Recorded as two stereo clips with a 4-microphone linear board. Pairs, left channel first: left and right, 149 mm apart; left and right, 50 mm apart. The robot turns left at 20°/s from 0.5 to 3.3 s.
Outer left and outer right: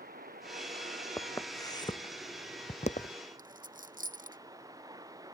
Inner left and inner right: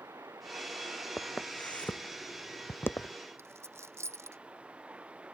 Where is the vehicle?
85° right; by 5.3 s 25° right (ahead or behind).